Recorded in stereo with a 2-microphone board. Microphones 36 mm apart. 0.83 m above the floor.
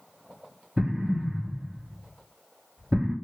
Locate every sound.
0.8 s an explosion: 25° right (ahead or behind), 0.7 m